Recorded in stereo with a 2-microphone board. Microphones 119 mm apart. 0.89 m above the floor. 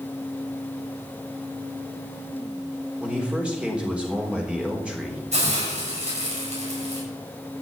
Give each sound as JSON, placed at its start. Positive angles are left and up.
{"t": 3.0, "sound": "a man speaking", "side_deg": -10, "distance_m": 3.5}
{"t": 5.3, "sound": "a hiss", "side_deg": -80, "distance_m": 8.0}